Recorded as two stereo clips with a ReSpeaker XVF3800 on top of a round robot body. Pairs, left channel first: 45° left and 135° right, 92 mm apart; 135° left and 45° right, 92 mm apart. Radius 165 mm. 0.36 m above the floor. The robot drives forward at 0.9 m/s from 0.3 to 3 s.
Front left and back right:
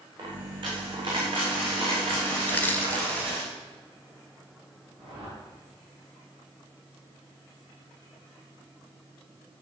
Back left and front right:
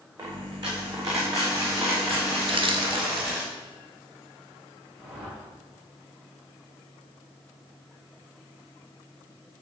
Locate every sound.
0.2 s a dropped coin: 90° right, 6 m; by 3.4 s 110° right, 6.5 m
2.4 s crushing: 25° right, 2.5 m; by 3.3 s 30° right, 2 m
5.0 s a whoosh: 115° right, 6 m